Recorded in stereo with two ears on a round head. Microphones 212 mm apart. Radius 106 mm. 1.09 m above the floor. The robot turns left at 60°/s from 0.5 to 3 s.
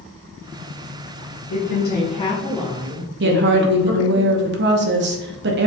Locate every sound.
1.5 s a woman speaking: 70° left, 1.3 m; by 4.2 s 20° right, 1.3 m
3.2 s a woman speaking: 50° right (ahead or behind), 0.8 m